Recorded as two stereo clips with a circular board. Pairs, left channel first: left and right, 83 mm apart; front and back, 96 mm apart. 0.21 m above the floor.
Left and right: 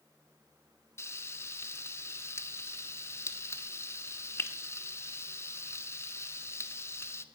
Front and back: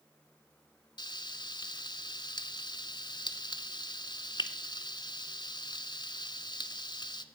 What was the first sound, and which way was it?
Frying, 35° left.